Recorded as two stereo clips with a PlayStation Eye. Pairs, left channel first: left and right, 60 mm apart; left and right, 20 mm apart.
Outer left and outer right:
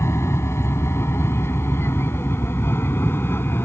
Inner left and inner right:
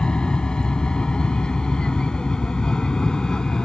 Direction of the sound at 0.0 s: 50° left (ahead or behind).